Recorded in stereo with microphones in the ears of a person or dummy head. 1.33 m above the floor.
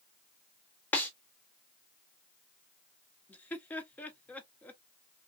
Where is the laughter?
15° left (ahead or behind), 0.9 m.